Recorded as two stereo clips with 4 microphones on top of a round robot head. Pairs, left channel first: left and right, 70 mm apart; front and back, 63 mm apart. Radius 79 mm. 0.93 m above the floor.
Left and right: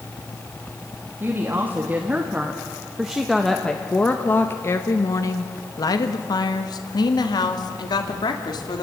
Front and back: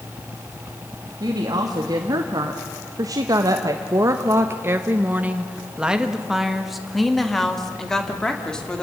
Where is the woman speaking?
150° right, 2 m; by 8.8 s 80° left, 3 m.